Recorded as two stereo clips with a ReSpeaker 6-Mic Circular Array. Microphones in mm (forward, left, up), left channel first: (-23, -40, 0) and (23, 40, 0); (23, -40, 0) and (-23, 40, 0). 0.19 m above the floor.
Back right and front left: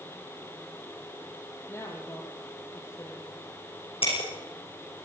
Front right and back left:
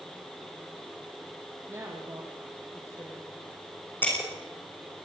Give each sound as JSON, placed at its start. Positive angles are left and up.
{"t": 1.7, "sound": "a woman speaking", "azimuth_deg": 180, "distance_m": 5.0}
{"t": 4.0, "sound": "breaking glass", "azimuth_deg": -130, "distance_m": 7.0}